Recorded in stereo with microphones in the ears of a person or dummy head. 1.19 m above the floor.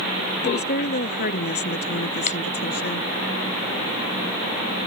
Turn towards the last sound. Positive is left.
turn(degrees=40)  # may be behind; listen again after turning